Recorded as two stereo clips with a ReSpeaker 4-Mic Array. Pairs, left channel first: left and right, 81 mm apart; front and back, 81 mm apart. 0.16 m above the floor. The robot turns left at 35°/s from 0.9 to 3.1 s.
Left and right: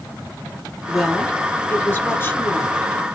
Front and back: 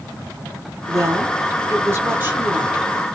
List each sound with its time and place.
0.9 s a woman speaking: straight behind, 1.8 m; by 2.9 s 110° left, 1.8 m